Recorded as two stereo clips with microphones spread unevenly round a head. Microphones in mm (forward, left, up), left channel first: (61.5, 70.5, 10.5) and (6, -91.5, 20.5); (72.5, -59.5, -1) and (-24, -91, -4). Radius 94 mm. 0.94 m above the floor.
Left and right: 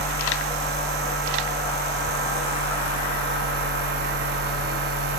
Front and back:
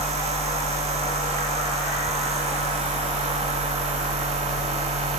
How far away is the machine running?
About 0.9 m.